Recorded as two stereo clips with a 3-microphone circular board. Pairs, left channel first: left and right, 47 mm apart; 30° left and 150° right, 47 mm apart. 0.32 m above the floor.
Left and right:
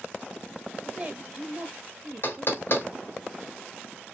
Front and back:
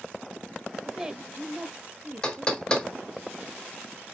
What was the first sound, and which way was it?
A woman speaking, 75° right.